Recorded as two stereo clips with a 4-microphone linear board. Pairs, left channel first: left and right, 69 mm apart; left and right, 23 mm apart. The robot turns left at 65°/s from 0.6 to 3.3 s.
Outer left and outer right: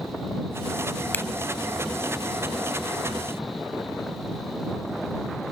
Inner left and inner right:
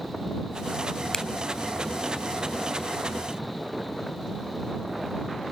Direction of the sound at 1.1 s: 25° left (ahead or behind).